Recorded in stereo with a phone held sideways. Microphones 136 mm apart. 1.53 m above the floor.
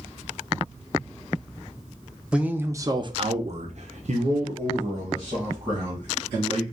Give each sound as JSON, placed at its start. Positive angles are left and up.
{"t": 2.3, "sound": "a man speaking", "side_deg": -10, "distance_m": 0.8}